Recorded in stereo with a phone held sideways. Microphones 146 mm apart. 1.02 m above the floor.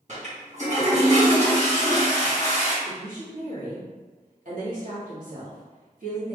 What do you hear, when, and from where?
0.1 s a toilet flushing: 55° right (ahead or behind), 1.2 m
2.9 s a woman speaking: 65° right (ahead or behind), 1.5 m